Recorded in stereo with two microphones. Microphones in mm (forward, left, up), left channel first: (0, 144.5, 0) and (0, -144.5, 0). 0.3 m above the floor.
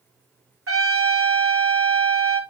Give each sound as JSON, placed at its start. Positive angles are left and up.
{"t": 0.7, "sound": "a trumpet", "side_deg": -55, "distance_m": 1.8}